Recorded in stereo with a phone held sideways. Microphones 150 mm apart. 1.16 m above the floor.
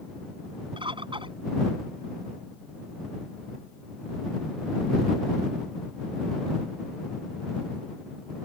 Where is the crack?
No crack in this recording.